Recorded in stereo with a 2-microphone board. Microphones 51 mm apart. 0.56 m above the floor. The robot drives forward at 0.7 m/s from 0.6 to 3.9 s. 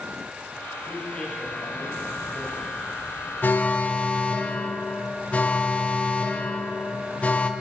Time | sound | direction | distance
0.9 | a man speaking | 30° left (ahead or behind) | 4 m
3.4 | an alarm | 40° left (ahead or behind) | 0.8 m